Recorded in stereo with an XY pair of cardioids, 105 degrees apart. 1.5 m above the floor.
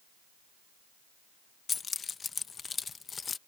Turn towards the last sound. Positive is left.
turn(degrees=35)